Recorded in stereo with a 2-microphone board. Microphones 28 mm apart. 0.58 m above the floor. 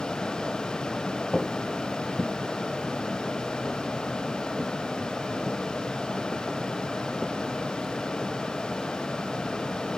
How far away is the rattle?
No rattle in this recording.